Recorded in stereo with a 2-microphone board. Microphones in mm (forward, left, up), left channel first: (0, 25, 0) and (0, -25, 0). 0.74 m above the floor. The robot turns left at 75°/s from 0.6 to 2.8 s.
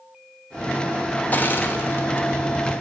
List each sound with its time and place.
1.3 s crushing: 35° left (ahead or behind), 0.5 m; by 2.7 s 15° left (ahead or behind), 0.5 m